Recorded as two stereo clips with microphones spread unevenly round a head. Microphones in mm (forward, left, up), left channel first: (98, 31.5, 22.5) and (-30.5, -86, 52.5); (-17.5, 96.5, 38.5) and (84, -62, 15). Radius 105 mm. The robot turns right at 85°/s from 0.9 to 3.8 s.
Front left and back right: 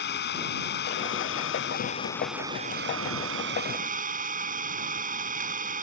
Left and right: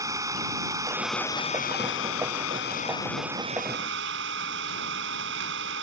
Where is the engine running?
15° left; by 5.8 s 95° right.